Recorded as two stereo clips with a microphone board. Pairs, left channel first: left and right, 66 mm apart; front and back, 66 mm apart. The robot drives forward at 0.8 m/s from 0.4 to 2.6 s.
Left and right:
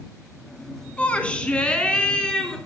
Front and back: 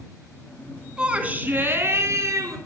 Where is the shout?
125° left, 1.2 m; by 2.6 s 165° left, 1.9 m.